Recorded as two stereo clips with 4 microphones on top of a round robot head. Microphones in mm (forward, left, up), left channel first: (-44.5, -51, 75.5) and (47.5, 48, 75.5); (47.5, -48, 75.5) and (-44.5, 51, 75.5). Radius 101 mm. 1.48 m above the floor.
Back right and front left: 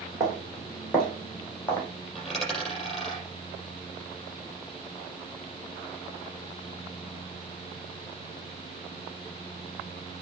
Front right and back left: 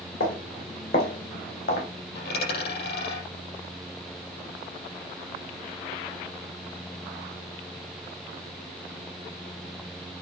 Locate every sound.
0.2 s footsteps: 40° right, 3.5 m; by 1.9 s 60° right, 3.5 m
2.1 s a dropped coin: 45° right, 6.5 m